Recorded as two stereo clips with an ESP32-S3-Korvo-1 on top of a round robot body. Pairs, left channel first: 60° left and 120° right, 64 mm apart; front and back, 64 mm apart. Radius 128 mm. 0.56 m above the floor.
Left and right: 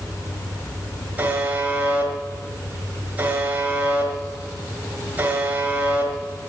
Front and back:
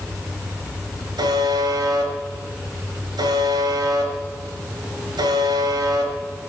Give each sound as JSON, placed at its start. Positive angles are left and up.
{"t": 1.2, "sound": "a buzzer", "azimuth_deg": 175, "distance_m": 4.5}